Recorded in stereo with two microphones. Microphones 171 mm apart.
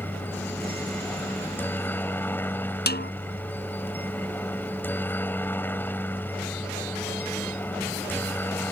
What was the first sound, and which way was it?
A helicopter, 10° left (ahead or behind).